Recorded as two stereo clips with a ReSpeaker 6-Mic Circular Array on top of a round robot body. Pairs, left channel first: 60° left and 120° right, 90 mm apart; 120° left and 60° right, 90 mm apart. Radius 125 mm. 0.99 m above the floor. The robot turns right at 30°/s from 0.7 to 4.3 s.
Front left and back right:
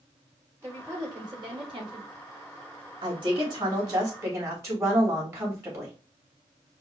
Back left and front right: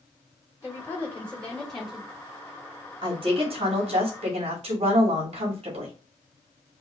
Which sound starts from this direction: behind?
A woman speaking, at 0.6 s.